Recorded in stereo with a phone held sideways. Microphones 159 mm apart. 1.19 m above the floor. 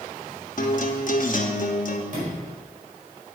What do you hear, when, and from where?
0.6 s a guitar: 60° left (ahead or behind), 1.0 m
2.1 s a sliding door: 55° right (ahead or behind), 4.5 m